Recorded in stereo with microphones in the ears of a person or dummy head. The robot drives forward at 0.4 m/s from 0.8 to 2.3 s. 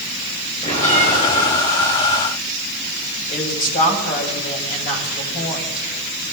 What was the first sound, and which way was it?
A bell, 40° left (ahead or behind).